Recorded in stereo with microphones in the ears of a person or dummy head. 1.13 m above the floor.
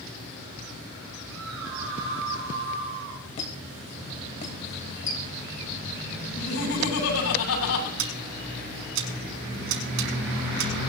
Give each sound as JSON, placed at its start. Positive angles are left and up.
{"t": 1.3, "sound": "a scream", "side_deg": -80, "distance_m": 4.5}
{"t": 3.4, "sound": "a squeak", "side_deg": 40, "distance_m": 2.5}
{"t": 6.3, "sound": "laughter", "side_deg": 85, "distance_m": 8.0}
{"t": 8.0, "sound": "scissors", "side_deg": -70, "distance_m": 5.5}